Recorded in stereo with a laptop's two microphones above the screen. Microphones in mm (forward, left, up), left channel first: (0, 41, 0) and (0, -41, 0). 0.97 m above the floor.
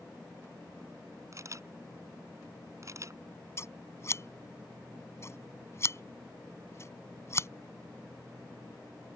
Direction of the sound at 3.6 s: 35° left (ahead or behind).